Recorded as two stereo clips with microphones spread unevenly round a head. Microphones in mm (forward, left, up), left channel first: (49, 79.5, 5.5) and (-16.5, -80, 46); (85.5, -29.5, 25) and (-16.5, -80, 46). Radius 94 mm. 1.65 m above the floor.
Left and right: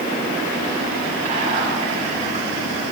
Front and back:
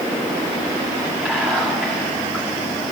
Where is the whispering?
65° right, 2 m.